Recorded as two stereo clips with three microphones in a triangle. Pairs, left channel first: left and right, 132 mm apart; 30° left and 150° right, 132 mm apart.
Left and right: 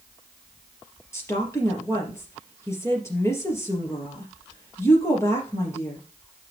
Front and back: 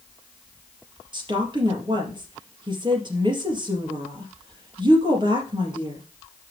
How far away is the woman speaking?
About 3.5 m.